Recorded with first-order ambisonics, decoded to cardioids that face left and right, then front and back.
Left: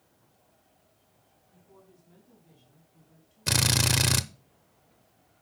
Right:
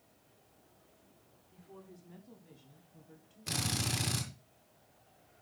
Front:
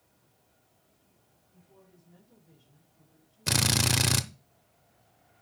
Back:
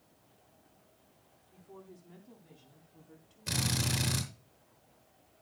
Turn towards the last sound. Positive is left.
turn(degrees=45)